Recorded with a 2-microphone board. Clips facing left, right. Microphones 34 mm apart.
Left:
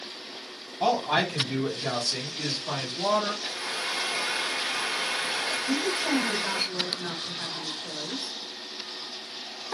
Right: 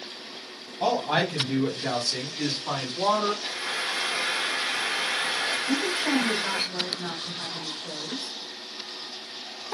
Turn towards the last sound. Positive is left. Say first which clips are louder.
# even
turn(degrees=-25)  # may be behind; listen again after turning